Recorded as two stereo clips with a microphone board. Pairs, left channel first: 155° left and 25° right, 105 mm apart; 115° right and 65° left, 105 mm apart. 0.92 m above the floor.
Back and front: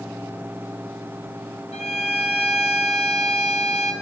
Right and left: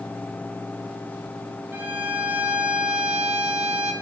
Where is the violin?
140° left, 0.8 m.